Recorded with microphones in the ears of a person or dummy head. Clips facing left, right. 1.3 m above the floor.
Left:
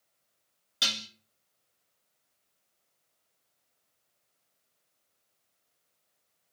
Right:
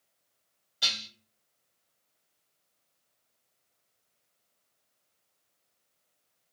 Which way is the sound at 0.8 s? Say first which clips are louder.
Left 4 dB; 75° left (ahead or behind).